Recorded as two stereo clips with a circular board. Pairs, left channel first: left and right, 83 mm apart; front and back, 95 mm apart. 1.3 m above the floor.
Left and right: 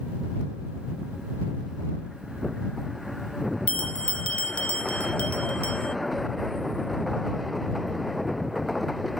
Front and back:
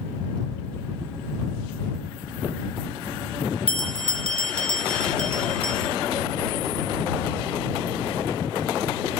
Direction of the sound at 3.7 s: 165° left.